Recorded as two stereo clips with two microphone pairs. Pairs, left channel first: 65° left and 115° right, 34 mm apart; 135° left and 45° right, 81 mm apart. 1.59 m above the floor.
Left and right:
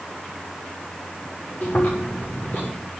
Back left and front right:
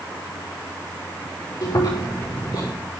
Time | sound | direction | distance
1.6 | chewing | 100° left | 6.5 m